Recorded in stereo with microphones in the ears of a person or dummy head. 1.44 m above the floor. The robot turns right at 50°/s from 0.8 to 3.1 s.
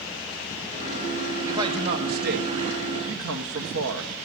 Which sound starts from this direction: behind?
A man speaking, at 1.5 s.